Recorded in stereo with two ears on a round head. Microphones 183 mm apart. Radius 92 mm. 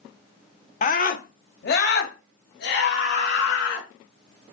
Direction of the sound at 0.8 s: 35° left (ahead or behind).